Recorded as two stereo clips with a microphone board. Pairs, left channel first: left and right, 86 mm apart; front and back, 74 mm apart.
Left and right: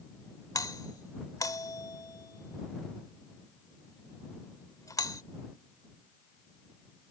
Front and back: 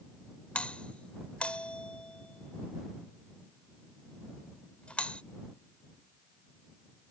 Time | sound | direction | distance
0.6 | a doorbell | 70° left | ?